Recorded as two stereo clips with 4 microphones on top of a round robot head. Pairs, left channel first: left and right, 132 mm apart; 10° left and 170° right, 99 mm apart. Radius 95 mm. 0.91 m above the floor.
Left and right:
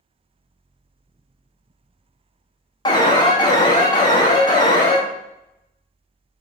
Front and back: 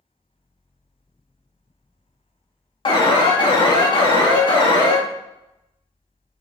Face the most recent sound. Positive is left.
turn(degrees=35)